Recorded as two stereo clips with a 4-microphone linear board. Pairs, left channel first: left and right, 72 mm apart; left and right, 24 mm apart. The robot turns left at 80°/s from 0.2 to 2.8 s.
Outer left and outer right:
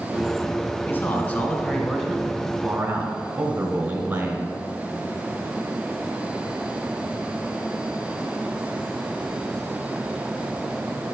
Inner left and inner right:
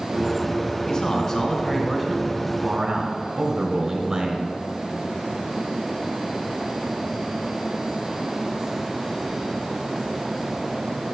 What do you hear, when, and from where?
0.9 s a man speaking: 25° left (ahead or behind), 1.4 m; by 4.5 s 20° right (ahead or behind), 1.4 m